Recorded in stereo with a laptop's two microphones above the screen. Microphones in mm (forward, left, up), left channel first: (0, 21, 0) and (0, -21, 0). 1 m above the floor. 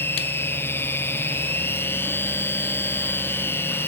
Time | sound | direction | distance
0.0 | a machine running | 65° left (ahead or behind) | ?